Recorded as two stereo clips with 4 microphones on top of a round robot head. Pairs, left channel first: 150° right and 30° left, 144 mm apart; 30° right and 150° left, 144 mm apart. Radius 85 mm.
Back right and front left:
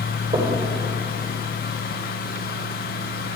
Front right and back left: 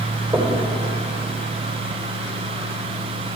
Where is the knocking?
80° left, 2.5 m.